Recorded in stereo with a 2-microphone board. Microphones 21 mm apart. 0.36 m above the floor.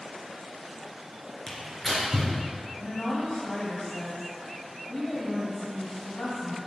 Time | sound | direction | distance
1.5 | tearing paper | 20° left (ahead or behind) | 3 m
2.8 | a woman speaking | 65° left (ahead or behind) | 1.9 m